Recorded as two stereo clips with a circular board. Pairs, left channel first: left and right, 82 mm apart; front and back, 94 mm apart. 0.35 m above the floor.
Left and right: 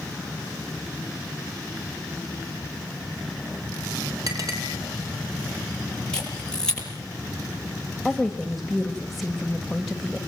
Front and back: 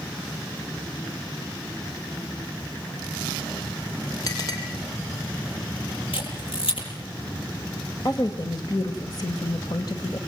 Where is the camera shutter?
10° left, 9.5 m.